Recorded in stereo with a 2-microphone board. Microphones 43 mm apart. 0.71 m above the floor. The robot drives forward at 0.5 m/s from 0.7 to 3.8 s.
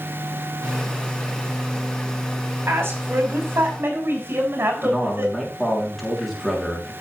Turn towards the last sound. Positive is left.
turn(degrees=5)  # may be behind; listen again after turning